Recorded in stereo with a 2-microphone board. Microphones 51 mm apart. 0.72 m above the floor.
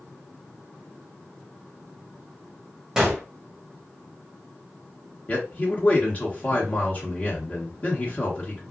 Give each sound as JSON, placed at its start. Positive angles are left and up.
{"t": 3.0, "sound": "a gunshot", "side_deg": -15, "distance_m": 1.2}
{"t": 5.3, "sound": "a man speaking", "side_deg": 35, "distance_m": 1.4}